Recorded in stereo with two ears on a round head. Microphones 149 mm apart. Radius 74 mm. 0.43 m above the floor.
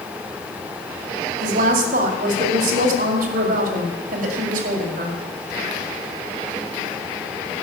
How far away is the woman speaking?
About 2.5 m.